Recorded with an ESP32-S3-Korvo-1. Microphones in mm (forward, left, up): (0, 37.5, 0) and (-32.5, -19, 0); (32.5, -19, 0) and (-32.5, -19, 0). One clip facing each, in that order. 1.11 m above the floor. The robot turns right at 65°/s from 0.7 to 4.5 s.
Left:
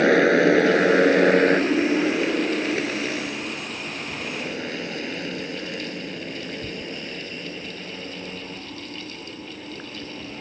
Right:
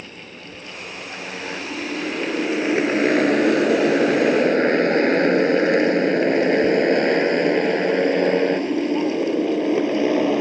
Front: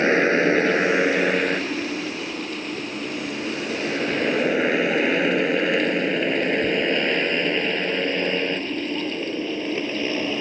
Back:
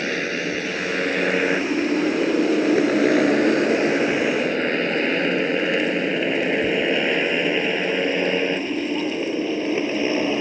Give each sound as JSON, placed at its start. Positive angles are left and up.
{"t": 0.0, "sound": "a motorcycle", "azimuth_deg": 60}